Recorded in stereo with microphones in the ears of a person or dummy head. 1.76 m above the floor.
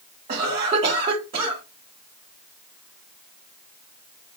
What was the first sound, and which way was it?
A cough, 30° right (ahead or behind).